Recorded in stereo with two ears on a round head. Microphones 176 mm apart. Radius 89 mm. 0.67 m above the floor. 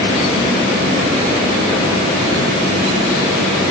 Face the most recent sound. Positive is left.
No sound to turn to.